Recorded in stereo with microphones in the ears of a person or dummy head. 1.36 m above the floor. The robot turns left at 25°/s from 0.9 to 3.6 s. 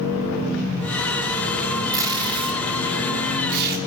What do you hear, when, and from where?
1.9 s tape being pulled: 15° right (ahead or behind), 3 m; by 3.8 s 60° right (ahead or behind), 3 m